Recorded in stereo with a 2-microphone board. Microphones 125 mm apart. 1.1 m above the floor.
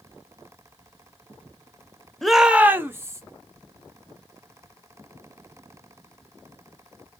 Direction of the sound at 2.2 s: 5° left (ahead or behind).